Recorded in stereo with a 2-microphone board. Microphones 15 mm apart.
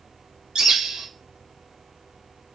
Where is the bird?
75° right (ahead or behind), 0.7 m.